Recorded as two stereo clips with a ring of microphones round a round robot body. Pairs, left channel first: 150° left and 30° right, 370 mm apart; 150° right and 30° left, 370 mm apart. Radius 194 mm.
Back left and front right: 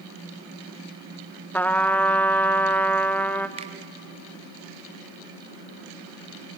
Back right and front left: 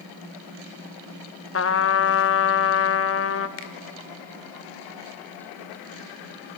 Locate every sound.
1.5 s a trumpet: 125° right, 0.8 m
3.6 s a finger snap: 105° right, 1.9 m